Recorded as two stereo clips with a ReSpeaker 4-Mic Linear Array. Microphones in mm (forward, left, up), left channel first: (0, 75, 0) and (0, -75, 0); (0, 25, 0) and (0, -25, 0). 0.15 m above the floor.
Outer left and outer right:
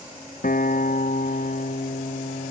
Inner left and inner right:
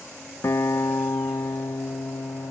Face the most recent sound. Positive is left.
turn(degrees=65)  # may be behind; listen again after turning